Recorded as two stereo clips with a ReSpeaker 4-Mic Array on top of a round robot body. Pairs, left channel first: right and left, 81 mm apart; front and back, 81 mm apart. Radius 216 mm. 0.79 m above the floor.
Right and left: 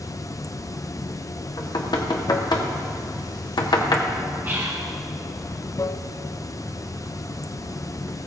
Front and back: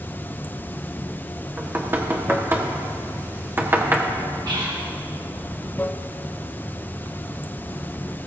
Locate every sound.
0.0 s running water: 60° right, 0.8 m
1.6 s knocking: 120° right, 1.6 m
4.5 s whispering: 155° left, 1.9 m